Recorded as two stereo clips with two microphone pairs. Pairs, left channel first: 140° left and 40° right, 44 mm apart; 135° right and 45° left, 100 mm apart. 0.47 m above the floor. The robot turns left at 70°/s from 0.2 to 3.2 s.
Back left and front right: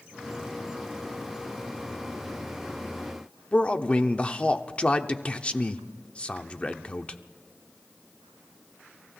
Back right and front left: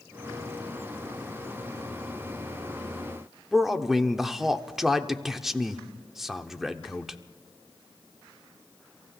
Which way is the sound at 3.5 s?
125° left.